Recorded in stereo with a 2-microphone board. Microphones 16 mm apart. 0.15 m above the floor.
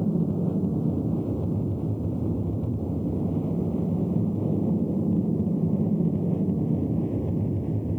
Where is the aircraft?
60° left (ahead or behind); by 8.0 s 50° left (ahead or behind).